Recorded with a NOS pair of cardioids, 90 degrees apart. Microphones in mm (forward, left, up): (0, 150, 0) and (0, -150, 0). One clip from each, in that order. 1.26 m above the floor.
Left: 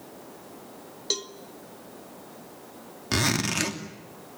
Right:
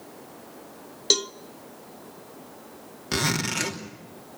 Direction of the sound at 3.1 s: 10° left.